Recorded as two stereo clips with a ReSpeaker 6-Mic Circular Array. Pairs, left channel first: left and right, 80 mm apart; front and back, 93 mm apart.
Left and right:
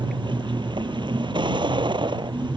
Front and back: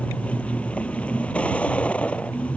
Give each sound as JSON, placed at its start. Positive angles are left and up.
{"t": 0.0, "sound": "a vehicle", "azimuth_deg": -75}